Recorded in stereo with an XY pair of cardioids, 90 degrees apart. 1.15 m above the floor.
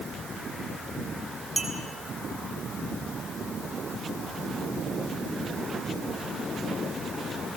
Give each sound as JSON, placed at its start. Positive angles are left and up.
{"t": 1.6, "sound": "a clink", "azimuth_deg": -25, "distance_m": 5.0}